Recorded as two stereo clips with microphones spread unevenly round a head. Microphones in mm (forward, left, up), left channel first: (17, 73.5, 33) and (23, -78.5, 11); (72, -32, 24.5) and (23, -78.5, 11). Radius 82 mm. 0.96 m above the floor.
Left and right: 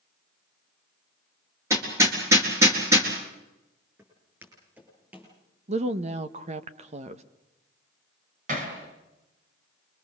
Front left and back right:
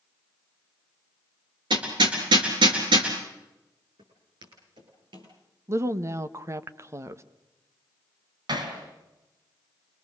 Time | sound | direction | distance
1.7 | hammering | 165° right | 4 m
4.0 | footsteps | 165° right | 9.5 m
5.7 | a woman speaking | 115° right | 1.2 m
8.5 | hammering | 135° right | 4.5 m